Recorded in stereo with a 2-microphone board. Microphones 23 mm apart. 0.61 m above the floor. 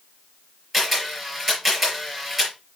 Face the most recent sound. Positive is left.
turn(degrees=0)  # may be behind; listen again after turning